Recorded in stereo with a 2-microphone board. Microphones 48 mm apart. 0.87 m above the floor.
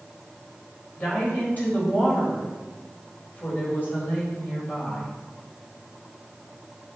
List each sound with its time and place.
1.0 s a woman speaking: 40° left (ahead or behind), 4 m